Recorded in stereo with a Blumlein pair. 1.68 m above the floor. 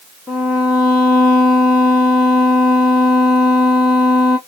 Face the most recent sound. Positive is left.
turn(degrees=15)